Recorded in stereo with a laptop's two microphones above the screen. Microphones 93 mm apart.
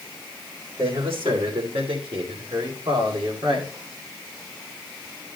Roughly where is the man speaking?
Right.